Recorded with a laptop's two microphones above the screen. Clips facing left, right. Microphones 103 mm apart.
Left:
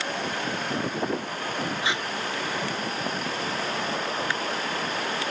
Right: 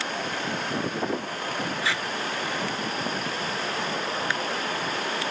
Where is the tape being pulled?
20° left (ahead or behind).